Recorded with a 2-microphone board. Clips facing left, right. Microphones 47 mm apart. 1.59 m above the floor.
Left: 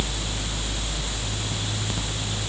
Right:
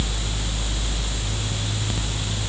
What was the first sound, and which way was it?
Only background noise.